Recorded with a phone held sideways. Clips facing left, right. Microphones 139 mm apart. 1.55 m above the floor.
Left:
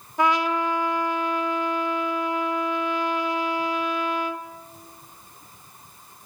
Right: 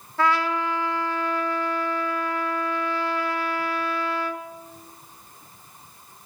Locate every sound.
0.2 s a trumpet: 15° left (ahead or behind), 1.0 m